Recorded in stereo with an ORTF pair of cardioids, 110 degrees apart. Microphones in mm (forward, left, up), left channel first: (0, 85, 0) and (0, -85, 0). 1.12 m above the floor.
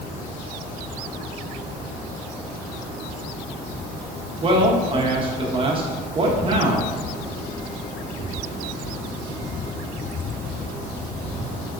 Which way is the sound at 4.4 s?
30° right.